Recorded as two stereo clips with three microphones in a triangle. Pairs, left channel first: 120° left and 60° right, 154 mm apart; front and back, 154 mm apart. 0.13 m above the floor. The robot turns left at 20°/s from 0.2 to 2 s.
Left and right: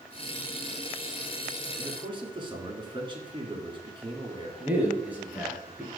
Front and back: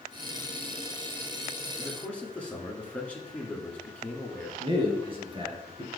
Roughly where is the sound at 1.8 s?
Right.